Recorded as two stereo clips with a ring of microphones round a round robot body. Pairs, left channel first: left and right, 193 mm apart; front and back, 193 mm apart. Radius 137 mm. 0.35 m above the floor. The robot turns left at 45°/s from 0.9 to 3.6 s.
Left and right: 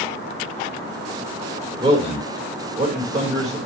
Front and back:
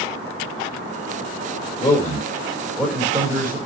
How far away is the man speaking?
About 1.6 m.